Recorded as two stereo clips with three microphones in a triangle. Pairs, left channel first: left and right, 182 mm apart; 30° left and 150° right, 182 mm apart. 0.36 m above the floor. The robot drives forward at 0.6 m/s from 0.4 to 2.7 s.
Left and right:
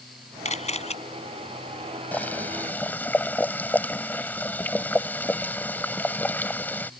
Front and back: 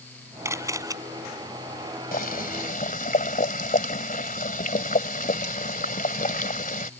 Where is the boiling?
10° left; by 6.9 s 15° left.